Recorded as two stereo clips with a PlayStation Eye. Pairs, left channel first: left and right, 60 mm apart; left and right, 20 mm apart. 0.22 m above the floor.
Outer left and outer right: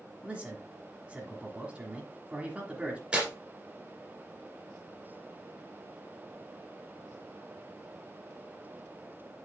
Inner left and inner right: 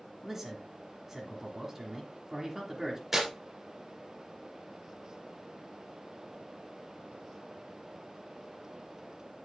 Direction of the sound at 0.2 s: 15° right (ahead or behind).